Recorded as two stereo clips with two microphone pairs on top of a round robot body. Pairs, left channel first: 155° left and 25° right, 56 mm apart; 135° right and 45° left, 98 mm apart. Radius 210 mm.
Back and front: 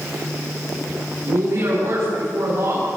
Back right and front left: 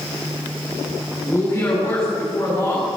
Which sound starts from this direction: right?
A woman speaking, at 1.2 s.